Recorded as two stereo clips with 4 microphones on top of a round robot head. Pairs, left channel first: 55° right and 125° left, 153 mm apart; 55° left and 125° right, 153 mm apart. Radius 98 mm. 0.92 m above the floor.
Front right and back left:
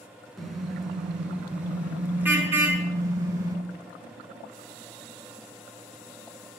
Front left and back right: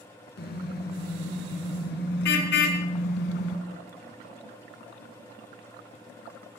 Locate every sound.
0.4 s a car horn: 35° left, 5 m; by 3.6 s 55° left, 4.5 m